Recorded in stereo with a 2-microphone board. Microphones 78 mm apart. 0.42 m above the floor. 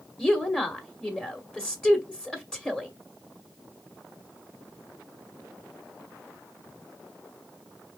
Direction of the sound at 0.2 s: 10° left (ahead or behind).